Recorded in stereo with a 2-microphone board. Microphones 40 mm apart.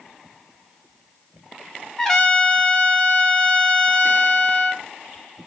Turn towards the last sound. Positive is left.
turn(degrees=10)  # may be behind; listen again after turning